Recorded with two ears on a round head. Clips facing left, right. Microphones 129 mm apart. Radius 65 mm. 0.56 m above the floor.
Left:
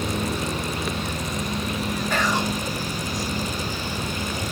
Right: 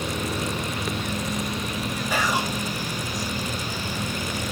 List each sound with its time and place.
2.1 s whispering: 5° right (ahead or behind), 0.9 m